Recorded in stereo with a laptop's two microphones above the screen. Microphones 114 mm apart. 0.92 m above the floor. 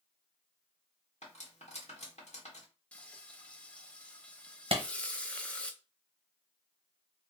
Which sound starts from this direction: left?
Cutlery clinking, at 1.2 s.